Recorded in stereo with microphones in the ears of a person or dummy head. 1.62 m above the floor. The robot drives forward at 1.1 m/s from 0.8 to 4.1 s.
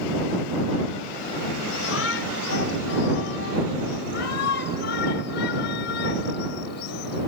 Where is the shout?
90° left; by 7.3 s 70° left (ahead or behind).